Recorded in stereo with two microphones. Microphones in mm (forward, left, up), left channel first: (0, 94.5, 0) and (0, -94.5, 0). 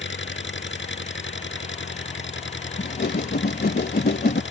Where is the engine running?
85° left.